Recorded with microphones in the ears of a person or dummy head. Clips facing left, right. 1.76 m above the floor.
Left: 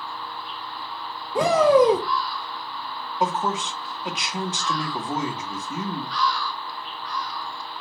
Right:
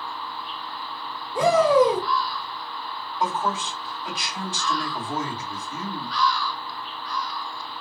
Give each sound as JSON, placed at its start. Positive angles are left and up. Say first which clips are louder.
{"t": 1.4, "sound": "a shout", "louder": "left 1 dB", "side_deg": 50, "distance_m": 0.7}
{"t": 3.2, "sound": "a man speaking", "louder": "left 1 dB", "side_deg": 15, "distance_m": 1.2}